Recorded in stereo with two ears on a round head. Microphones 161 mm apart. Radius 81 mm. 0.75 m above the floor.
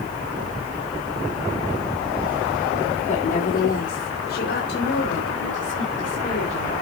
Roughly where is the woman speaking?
Left.